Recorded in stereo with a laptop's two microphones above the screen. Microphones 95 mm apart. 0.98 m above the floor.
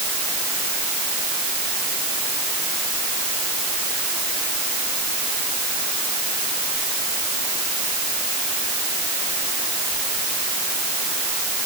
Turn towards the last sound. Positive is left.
No sound to turn to.